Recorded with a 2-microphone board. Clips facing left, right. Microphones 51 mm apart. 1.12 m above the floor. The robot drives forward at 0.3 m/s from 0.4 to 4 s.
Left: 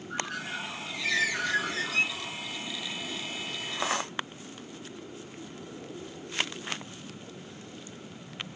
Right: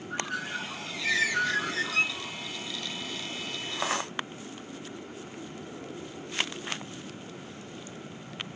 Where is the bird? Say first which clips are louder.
Right 1 dB; centre (ahead or behind), 2.5 m.